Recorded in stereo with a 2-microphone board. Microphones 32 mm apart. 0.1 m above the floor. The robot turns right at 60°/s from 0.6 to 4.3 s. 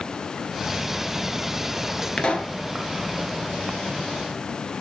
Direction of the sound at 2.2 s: 30° left (ahead or behind).